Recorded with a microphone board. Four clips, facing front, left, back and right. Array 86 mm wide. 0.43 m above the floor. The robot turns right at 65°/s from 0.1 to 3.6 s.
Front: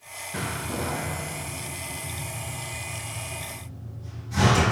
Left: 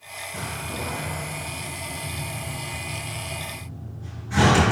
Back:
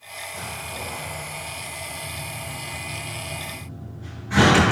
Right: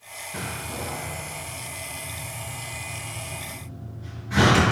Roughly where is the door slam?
Ahead.